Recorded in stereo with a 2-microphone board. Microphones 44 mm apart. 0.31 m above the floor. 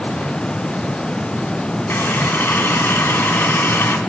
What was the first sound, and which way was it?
A running tap, 55° left (ahead or behind).